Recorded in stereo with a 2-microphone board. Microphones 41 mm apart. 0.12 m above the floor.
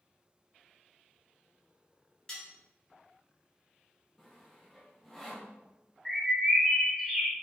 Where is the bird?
Centre (ahead or behind), 0.6 m.